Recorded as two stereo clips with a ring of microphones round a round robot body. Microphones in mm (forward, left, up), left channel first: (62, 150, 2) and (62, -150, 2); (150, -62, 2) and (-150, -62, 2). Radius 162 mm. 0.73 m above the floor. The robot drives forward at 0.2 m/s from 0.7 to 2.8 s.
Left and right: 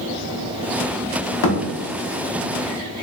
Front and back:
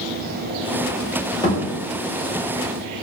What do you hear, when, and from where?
1.4 s a thud: 80° left, 0.7 m